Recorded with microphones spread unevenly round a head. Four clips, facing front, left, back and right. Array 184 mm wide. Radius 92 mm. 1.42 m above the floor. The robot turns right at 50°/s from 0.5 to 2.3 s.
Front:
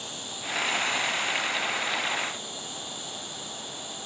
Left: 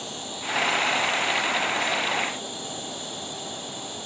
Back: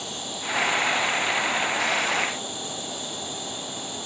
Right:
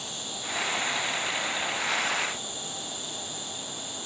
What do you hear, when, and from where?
0.0 s an insect: 30° left, 4 m; by 4.1 s 120° left, 4 m